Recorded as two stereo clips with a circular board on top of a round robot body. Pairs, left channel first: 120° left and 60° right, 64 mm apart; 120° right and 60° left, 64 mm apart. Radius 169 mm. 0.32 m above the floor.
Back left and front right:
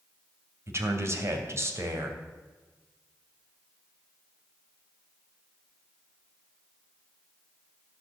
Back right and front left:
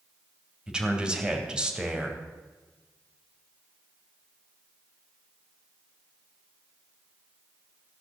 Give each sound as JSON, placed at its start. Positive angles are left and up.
{"t": 0.7, "sound": "a man speaking", "azimuth_deg": -15, "distance_m": 3.0}